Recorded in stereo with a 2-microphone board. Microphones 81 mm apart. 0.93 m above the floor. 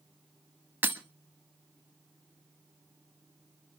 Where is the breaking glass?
25° right (ahead or behind), 1.2 m.